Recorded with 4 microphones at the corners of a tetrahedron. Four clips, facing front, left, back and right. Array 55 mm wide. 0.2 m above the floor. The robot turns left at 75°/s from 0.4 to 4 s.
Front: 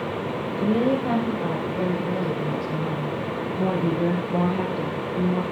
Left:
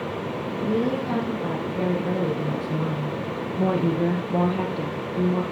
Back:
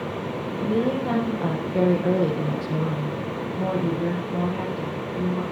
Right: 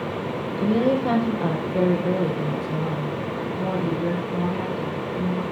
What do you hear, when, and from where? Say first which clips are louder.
0.6 s a woman speaking: right 4 dB, front 2 dB; 40° right, 6 m; by 5.4 s 65° left, 6 m